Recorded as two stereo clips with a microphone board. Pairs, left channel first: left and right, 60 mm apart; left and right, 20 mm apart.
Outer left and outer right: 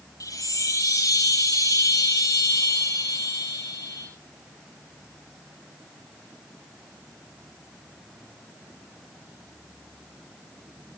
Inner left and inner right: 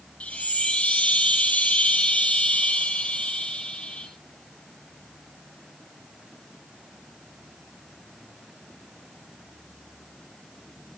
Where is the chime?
80° left, 9.5 m.